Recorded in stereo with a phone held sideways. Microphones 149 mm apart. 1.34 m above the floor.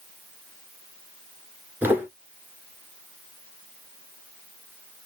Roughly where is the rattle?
I don't hear a rattle.